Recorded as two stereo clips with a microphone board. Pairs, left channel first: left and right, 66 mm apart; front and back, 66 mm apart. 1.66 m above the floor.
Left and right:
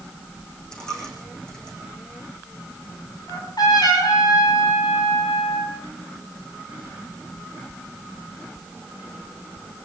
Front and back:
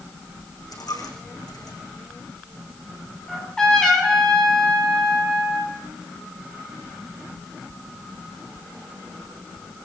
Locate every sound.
0.7 s a dropped coin: 10° left, 7.5 m
3.3 s a trumpet: 80° left, 7 m